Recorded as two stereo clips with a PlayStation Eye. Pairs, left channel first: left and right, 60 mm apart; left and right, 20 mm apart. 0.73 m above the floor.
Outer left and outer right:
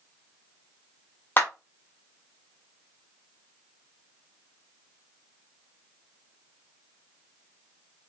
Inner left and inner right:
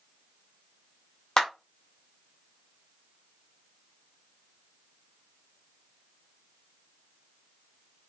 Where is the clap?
35° left (ahead or behind), 1.1 m.